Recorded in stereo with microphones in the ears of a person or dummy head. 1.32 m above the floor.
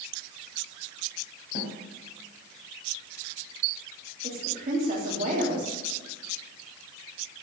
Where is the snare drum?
65° left (ahead or behind), 3 m.